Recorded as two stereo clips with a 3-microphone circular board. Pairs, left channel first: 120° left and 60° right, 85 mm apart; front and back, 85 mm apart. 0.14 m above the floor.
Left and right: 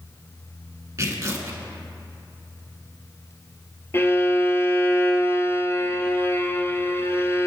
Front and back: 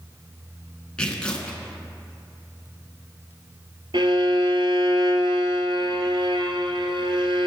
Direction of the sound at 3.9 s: Straight behind.